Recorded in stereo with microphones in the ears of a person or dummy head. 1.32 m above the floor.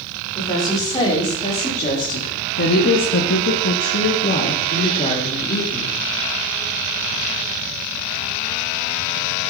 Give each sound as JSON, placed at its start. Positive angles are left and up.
{"t": 0.3, "sound": "a woman speaking", "side_deg": 20, "distance_m": 3.0}